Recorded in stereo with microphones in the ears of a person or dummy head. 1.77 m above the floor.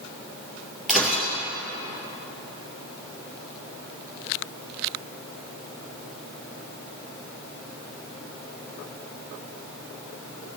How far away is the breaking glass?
About 3 m.